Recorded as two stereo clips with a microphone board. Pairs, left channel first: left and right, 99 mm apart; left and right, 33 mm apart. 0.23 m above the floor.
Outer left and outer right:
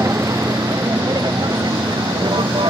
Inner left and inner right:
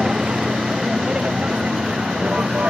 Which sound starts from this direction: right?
A vehicle, at 0.0 s.